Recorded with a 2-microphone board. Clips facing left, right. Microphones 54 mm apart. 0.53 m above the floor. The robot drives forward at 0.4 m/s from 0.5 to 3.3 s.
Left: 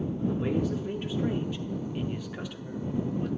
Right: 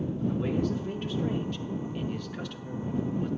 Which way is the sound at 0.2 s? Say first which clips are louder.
Even; 15° left (ahead or behind).